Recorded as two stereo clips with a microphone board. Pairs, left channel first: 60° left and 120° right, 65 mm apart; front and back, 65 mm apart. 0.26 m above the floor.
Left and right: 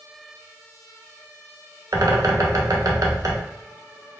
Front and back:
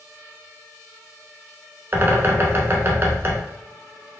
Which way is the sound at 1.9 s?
125° right.